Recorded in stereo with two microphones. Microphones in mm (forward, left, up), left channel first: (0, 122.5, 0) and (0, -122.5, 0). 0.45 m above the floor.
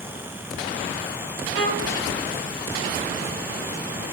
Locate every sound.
1.6 s a violin: 55° left (ahead or behind), 3.5 m